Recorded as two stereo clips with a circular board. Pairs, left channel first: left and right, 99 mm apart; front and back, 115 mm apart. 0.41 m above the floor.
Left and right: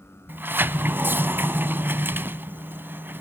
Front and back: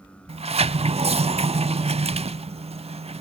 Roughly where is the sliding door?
Behind right.